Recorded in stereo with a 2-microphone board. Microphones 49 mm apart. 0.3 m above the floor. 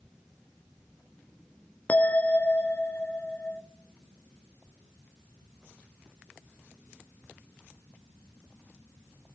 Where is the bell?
30° left (ahead or behind), 0.8 m.